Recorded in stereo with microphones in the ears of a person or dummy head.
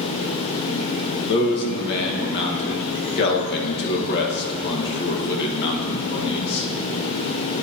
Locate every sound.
1.3 s a man speaking: 60° left (ahead or behind), 1.8 m